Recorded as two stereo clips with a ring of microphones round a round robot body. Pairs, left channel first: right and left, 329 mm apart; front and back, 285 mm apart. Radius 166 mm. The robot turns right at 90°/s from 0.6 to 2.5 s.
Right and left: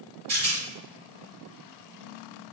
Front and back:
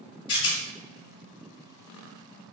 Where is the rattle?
20° left, 1.1 m.